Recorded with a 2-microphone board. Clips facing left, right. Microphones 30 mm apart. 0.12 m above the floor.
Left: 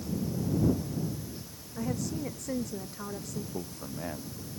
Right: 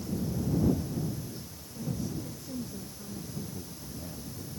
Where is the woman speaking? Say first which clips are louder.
Left 3 dB; 75° left (ahead or behind).